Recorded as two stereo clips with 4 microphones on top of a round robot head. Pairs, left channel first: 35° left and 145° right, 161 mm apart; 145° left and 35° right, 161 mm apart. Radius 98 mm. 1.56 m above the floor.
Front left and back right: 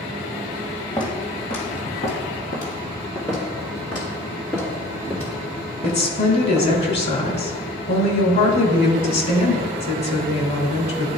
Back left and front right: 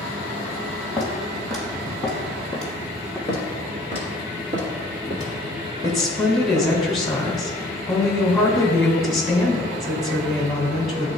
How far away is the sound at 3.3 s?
About 1.5 m.